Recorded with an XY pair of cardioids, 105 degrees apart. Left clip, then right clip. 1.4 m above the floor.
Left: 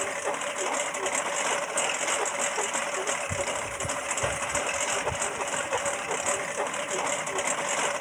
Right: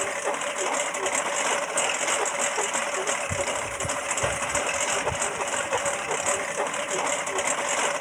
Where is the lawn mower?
15° right.